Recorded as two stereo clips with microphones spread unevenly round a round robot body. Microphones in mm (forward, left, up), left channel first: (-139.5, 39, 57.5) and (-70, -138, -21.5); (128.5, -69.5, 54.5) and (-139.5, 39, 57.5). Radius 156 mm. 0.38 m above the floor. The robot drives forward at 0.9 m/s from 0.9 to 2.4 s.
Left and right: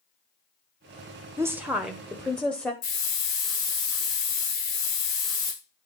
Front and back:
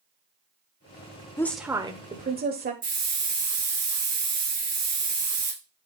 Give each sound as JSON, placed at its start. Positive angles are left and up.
{"t": 1.4, "sound": "a woman speaking", "azimuth_deg": -95, "distance_m": 1.0}
{"t": 2.8, "sound": "a hiss", "azimuth_deg": 85, "distance_m": 7.0}